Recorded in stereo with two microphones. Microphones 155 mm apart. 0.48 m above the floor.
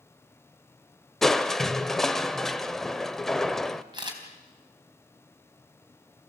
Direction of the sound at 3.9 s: 30° right (ahead or behind).